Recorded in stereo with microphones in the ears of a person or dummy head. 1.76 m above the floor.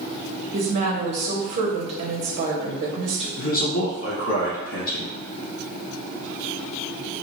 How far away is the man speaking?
About 1.4 m.